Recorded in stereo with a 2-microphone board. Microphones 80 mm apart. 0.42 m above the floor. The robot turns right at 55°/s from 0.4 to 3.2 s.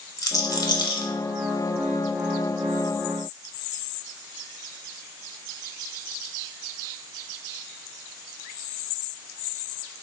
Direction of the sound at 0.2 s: 50° left (ahead or behind).